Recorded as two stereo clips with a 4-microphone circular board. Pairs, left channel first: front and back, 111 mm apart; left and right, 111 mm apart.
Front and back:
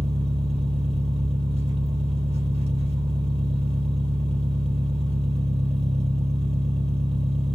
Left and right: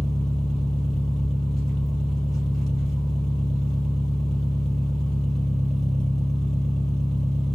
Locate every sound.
0.0 s an engine running: 175° left, 2.5 m